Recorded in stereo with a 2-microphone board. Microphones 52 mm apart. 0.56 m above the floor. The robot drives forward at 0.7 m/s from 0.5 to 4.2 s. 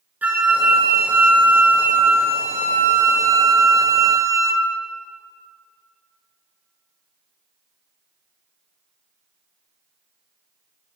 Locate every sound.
0.2 s a flute: 35° right (ahead or behind), 3 m; by 4.7 s 85° right, 1.6 m